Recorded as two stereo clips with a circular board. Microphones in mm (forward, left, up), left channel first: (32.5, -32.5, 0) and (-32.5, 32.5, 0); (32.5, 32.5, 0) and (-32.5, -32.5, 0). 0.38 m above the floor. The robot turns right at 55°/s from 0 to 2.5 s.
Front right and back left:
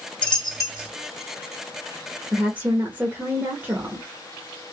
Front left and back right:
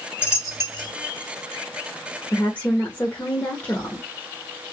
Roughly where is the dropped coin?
Ahead.